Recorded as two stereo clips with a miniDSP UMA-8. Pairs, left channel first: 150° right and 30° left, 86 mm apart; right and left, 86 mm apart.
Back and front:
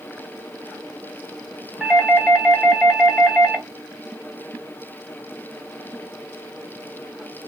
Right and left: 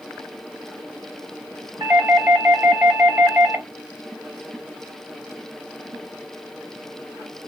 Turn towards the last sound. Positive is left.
turn(degrees=110)